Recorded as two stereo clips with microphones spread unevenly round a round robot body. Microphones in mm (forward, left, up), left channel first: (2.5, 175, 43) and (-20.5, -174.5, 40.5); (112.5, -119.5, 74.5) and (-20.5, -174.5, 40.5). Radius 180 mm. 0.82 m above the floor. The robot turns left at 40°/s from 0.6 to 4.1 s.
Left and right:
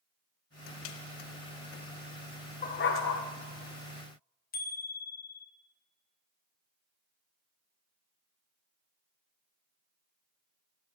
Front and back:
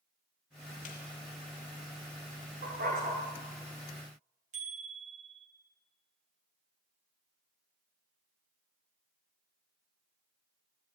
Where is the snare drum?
35° left, 1.0 m; by 1.0 s 30° left, 1.0 m.